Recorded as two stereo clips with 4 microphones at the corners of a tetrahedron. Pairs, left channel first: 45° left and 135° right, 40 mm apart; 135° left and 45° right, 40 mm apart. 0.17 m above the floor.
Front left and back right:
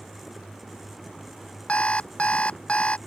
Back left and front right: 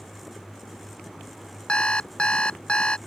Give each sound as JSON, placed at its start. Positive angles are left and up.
{"t": 1.7, "sound": "an alarm clock", "azimuth_deg": 85}